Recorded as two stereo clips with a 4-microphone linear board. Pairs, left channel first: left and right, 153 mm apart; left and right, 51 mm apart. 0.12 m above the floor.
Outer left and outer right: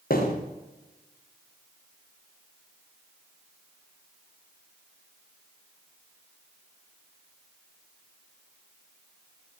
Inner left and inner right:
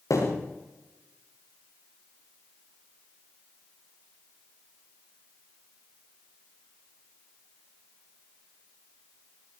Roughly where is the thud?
Left.